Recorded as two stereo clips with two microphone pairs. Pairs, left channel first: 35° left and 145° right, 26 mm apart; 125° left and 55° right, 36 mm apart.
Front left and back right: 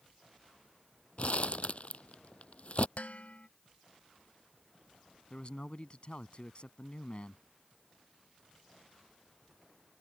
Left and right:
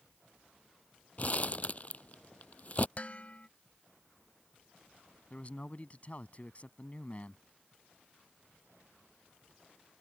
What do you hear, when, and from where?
1.2 s crumpling: 75° left
3.0 s dishes clattering: 70° left
5.3 s a man speaking: 75° left